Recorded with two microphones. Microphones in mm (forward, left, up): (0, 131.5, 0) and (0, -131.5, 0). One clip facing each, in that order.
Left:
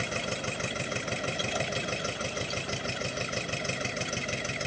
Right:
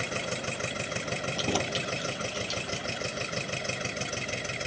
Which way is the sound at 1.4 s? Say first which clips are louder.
Right 3 dB; 80° right.